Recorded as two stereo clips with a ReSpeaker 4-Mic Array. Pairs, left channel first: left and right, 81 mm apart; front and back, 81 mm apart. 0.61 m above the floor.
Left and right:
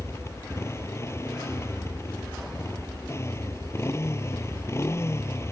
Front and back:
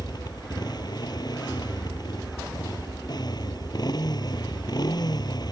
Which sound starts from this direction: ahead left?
A motorcycle, at 0.0 s.